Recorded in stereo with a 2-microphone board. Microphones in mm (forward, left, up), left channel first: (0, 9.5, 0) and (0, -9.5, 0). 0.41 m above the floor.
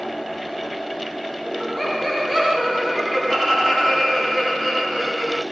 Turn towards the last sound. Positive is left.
turn(degrees=5)  # may be behind; listen again after turning